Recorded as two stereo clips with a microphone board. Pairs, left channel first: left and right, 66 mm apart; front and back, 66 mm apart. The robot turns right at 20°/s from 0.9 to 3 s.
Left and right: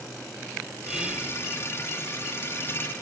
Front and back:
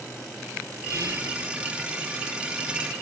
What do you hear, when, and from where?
0.9 s whispering: 170° right, 2 m; by 1.3 s 160° right, 2 m